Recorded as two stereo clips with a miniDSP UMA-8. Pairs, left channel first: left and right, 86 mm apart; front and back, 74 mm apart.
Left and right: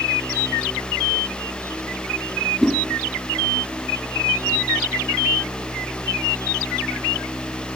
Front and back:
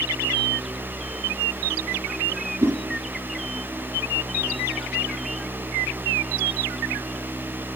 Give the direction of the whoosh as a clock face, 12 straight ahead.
6 o'clock.